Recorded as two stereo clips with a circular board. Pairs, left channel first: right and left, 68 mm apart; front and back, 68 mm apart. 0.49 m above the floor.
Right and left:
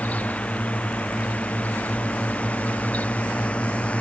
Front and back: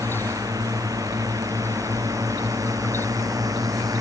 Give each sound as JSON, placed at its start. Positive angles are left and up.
{"t": 0.0, "sound": "a drone", "azimuth_deg": -160}